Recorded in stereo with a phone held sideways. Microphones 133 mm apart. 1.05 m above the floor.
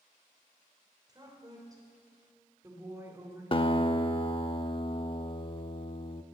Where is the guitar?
40° left (ahead or behind), 0.7 m.